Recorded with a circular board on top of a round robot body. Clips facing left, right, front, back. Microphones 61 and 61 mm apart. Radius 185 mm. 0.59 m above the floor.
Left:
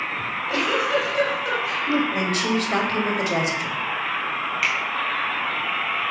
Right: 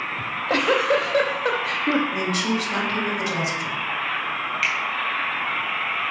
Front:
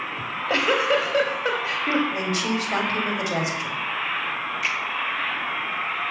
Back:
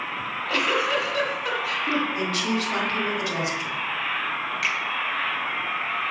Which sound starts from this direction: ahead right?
A giggle, at 0.2 s.